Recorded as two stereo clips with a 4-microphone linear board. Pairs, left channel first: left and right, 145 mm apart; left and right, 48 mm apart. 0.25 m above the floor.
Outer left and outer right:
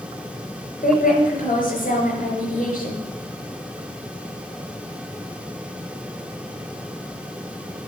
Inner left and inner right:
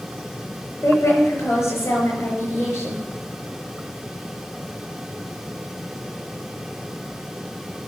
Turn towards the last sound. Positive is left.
turn(degrees=70)  # may be behind; listen again after turning